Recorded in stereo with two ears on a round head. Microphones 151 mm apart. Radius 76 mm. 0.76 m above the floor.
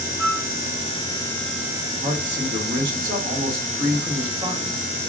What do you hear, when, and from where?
0.2 s a flute: 5° right (ahead or behind), 1.2 m
2.0 s a man speaking: 30° right (ahead or behind), 1.6 m